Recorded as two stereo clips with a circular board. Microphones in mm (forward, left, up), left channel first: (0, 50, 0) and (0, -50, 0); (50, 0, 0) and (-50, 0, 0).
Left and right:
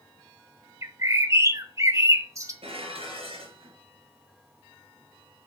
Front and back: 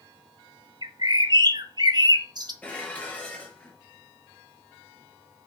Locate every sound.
0.8 s a bird: 145° right, 1.3 m
2.6 s dishes clattering: 75° right, 4.5 m